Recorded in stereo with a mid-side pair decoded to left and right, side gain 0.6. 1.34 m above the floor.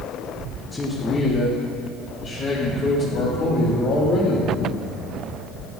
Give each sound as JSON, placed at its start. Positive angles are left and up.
{"t": 0.7, "sound": "a man speaking", "azimuth_deg": 15, "distance_m": 1.3}